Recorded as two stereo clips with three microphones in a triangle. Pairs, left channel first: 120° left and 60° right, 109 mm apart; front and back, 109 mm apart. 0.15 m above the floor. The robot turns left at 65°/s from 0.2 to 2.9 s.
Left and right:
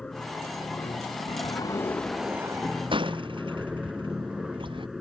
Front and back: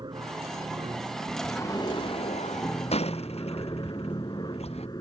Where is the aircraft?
160° right; by 5.0 s 25° left.